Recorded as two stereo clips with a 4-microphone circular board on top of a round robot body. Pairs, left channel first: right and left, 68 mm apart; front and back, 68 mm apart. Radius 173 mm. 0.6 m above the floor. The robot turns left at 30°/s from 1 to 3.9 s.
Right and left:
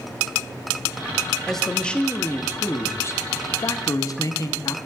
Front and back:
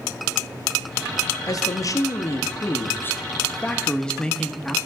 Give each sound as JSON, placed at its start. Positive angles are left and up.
{"t": 1.5, "sound": "a man speaking", "azimuth_deg": -5, "distance_m": 1.0}